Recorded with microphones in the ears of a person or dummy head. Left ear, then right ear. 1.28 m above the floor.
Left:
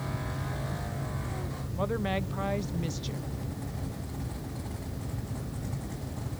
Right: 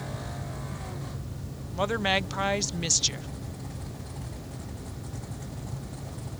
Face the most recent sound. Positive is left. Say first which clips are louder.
# right 6 dB
turn(degrees=-45)  # may be behind; listen again after turning